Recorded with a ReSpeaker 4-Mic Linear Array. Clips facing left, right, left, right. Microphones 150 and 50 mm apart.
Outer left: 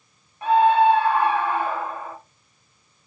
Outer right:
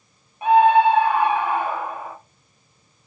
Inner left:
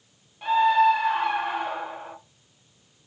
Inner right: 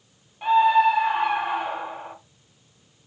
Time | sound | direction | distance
0.4 | a scream | 15° right (ahead or behind) | 1.1 m